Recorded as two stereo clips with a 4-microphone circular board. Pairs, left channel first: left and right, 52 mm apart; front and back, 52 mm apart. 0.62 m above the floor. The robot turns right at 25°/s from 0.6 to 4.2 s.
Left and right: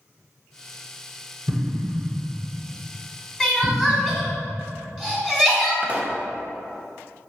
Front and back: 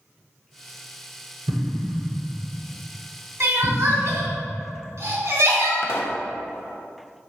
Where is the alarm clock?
I don't hear an alarm clock.